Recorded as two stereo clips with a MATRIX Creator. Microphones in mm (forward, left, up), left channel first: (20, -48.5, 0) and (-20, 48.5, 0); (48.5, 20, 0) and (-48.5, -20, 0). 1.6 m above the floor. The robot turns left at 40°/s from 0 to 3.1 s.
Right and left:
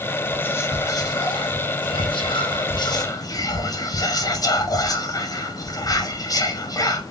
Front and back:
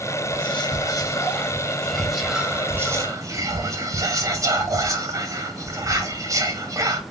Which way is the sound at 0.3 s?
5° left.